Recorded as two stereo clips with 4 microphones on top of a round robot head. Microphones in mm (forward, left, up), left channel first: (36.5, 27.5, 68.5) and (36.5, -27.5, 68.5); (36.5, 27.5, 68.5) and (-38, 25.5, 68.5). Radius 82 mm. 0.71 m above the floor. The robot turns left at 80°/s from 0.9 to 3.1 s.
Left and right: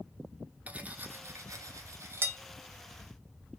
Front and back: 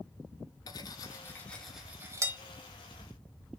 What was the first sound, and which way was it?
Cutlery clinking, 25° right.